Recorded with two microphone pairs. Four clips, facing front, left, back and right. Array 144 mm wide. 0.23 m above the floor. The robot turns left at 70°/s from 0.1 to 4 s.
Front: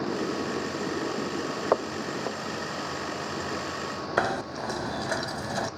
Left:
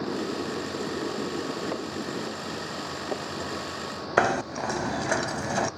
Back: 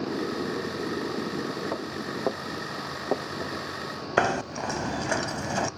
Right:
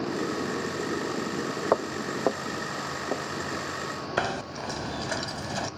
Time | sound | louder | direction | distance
1.7 | footsteps | right 5 dB, front 5 dB | 50° right | 1.0 m
4.2 | knocking | left 7 dB, back 3 dB | 120° left | 0.7 m